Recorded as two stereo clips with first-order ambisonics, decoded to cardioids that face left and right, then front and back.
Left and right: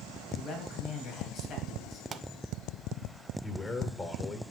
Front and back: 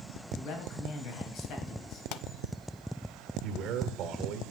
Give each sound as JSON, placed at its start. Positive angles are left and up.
{"t": 0.3, "sound": "a man speaking", "azimuth_deg": 35, "distance_m": 3.0}
{"t": 2.1, "sound": "a pop", "azimuth_deg": -25, "distance_m": 0.6}
{"t": 3.4, "sound": "a man speaking", "azimuth_deg": 160, "distance_m": 1.7}